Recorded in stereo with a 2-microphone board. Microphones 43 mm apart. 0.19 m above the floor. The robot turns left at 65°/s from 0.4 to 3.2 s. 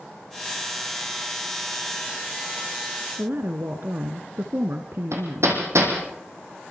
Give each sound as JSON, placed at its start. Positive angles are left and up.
{"t": 3.2, "sound": "a woman speaking", "side_deg": -55, "distance_m": 2.0}
{"t": 5.1, "sound": "hammering", "side_deg": -85, "distance_m": 5.5}